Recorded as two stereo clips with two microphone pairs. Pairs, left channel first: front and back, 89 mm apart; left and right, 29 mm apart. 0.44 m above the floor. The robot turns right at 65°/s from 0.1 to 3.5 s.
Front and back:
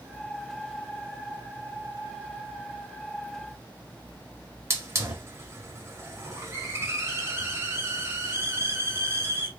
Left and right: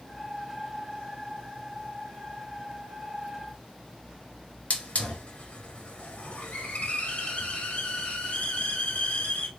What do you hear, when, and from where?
4.7 s a hiss: 125° left, 1.0 m